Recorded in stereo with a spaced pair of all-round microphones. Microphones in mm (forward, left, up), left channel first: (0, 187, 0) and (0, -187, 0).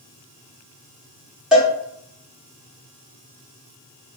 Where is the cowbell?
Centre (ahead or behind), 1.4 m.